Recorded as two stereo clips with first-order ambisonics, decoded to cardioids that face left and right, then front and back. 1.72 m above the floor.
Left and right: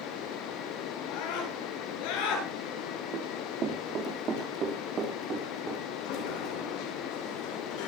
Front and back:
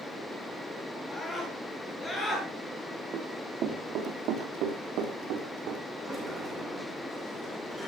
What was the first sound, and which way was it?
A scream, 85° left.